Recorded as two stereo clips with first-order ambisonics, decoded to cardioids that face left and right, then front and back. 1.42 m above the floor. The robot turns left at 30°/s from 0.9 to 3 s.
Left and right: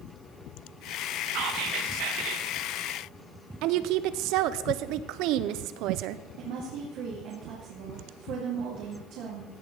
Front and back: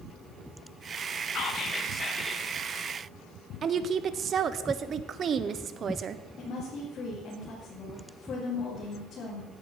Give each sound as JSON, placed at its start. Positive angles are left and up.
{"t": 1.3, "sound": "whispering", "azimuth_deg": -50, "distance_m": 1.5}
{"t": 3.6, "sound": "a woman speaking", "azimuth_deg": -120, "distance_m": 0.7}
{"t": 6.4, "sound": "a woman speaking", "azimuth_deg": -60, "distance_m": 2.5}